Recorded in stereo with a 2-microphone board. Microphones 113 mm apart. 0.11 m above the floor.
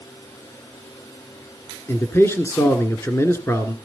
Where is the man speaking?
20° left (ahead or behind), 1.2 m.